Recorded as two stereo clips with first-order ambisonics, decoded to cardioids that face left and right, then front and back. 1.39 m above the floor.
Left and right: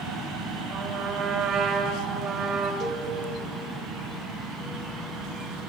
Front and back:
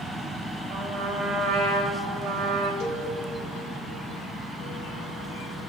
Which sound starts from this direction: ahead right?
A cowbell, at 2.8 s.